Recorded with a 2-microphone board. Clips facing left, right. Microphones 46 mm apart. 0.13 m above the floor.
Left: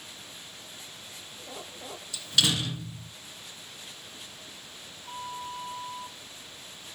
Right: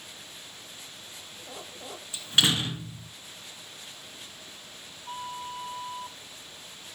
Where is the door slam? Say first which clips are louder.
Right 2 dB; 35° right (ahead or behind), 1.3 m.